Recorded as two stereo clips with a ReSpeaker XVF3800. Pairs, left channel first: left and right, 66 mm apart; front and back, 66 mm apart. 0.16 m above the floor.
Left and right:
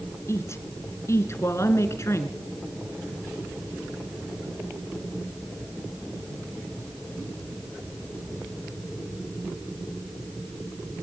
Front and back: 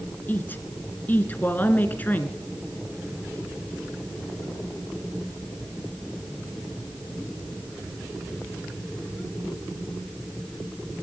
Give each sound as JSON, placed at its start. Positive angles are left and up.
{"t": 0.3, "sound": "a woman speaking", "azimuth_deg": 55, "distance_m": 1.7}